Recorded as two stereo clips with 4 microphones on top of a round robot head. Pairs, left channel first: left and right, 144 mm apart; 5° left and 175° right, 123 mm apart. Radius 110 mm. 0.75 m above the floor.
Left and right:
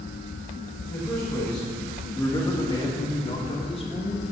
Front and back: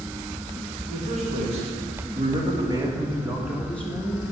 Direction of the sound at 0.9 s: 175° left.